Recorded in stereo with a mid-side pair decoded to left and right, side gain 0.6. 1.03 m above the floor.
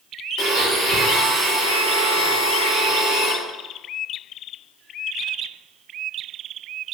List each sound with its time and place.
0.4 s a blender: 60° right, 1.3 m